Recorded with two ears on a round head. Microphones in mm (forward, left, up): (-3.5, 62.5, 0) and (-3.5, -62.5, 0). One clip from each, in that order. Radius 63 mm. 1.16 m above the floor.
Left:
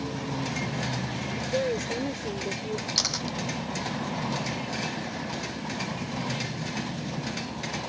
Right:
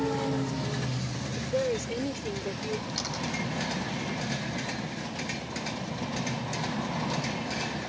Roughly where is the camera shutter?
Left.